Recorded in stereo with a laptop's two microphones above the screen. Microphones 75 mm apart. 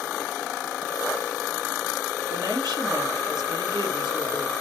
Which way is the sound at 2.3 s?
75° right (ahead or behind).